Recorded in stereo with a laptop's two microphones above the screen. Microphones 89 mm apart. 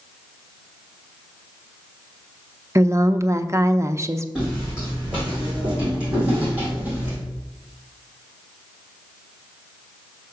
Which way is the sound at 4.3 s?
10° right (ahead or behind).